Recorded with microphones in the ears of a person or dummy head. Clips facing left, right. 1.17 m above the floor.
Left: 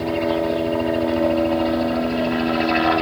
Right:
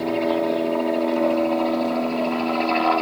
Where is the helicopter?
5° left (ahead or behind); by 3.0 s 20° left (ahead or behind).